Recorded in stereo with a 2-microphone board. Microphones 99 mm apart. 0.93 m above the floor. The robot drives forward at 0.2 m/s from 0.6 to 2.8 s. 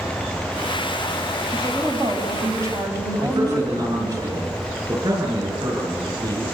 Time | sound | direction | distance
1.5 | a woman speaking | 35° right (ahead or behind) | 5 m
3.2 | a man speaking | 45° right (ahead or behind) | 10 m